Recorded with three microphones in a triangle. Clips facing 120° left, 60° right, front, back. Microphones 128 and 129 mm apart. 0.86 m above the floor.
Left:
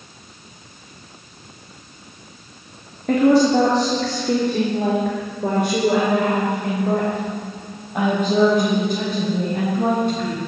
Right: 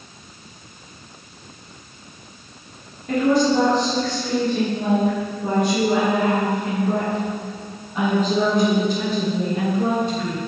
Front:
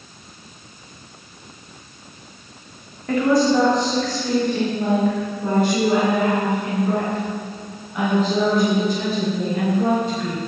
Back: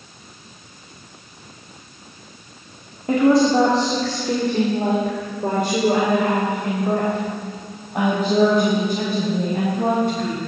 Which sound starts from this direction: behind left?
A woman speaking, at 3.1 s.